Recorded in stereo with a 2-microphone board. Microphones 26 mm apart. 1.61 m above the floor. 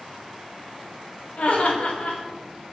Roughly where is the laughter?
Left.